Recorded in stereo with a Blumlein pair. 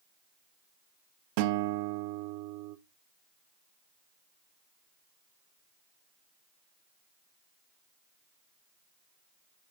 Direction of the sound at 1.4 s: 45° right.